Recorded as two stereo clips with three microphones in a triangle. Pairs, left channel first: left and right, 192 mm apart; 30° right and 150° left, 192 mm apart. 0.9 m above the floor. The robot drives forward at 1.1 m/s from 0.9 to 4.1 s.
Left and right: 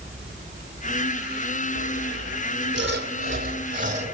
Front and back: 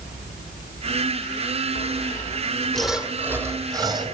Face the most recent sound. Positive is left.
turn(degrees=-140)